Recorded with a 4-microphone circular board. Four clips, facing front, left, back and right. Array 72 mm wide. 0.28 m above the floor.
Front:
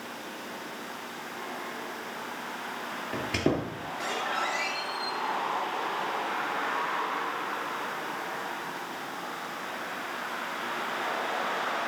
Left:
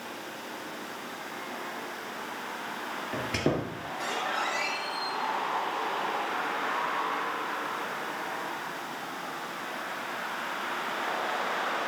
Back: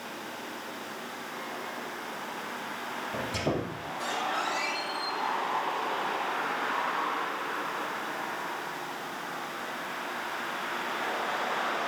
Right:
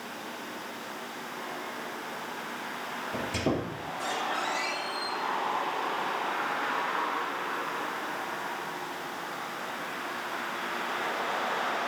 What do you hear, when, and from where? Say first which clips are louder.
3.1 s a squeak: left 1 dB, front 3 dB; 40° left, 3 m